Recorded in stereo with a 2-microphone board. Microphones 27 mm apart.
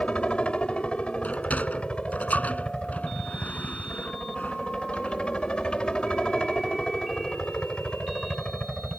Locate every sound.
0.0 s a helicopter: 50° left (ahead or behind); by 9.0 s 40° left (ahead or behind)
1.2 s a sliding door: 75° left (ahead or behind)